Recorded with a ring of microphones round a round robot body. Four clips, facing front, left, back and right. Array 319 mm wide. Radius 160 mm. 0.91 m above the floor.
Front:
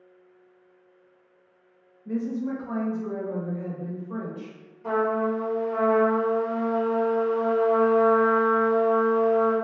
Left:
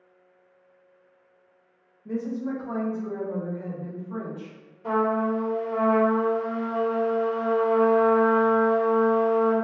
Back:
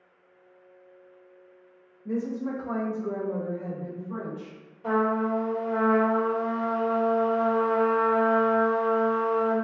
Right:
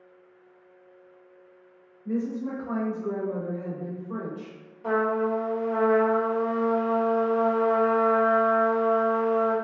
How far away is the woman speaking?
About 1.0 m.